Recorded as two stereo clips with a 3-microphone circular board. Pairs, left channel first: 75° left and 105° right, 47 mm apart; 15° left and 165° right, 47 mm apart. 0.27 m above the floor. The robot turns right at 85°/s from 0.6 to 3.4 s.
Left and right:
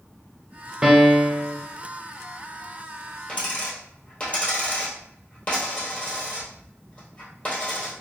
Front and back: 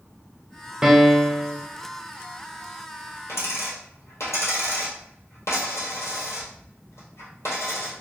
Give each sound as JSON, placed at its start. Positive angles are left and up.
{"t": 0.8, "sound": "a piano", "azimuth_deg": -135, "distance_m": 0.5}
{"t": 3.3, "sound": "a dropped coin", "azimuth_deg": 5, "distance_m": 1.3}